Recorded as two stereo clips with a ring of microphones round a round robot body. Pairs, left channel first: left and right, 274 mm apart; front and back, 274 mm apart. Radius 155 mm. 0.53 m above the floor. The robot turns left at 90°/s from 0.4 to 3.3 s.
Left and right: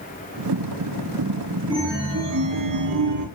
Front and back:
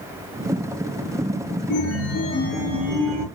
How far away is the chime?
About 7 m.